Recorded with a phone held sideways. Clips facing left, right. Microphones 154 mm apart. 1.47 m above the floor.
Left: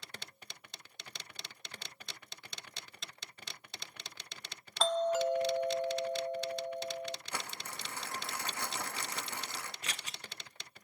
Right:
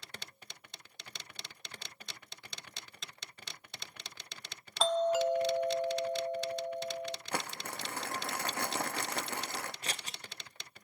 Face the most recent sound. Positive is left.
turn(degrees=-40)  # may be behind; listen again after turning